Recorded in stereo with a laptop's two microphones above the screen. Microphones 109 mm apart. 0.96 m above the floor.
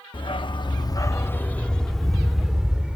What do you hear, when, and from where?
0.1 s a dog barking: 50° left (ahead or behind), 0.6 m; by 3.0 s 10° right (ahead or behind), 1.3 m